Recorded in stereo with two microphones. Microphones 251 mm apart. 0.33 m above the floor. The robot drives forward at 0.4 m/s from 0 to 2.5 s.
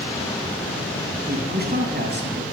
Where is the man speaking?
40° right (ahead or behind), 3 m; by 2.4 s 45° right (ahead or behind), 2.5 m.